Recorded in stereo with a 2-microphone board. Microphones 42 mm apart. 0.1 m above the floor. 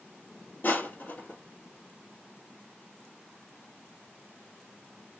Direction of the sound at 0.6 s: 45° left (ahead or behind).